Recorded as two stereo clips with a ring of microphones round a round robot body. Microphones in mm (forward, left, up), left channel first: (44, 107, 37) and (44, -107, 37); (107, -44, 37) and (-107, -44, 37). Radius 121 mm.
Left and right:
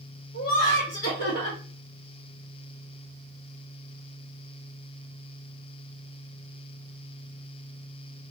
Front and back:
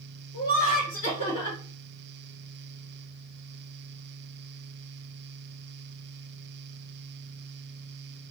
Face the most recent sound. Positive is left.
turn(degrees=70)